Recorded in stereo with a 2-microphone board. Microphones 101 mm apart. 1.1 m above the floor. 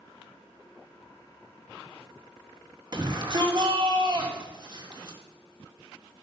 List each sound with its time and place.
2.9 s a shout: 45° right (ahead or behind), 2.5 m